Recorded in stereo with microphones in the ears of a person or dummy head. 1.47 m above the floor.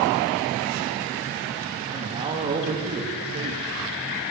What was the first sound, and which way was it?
A man speaking, 30° right (ahead or behind).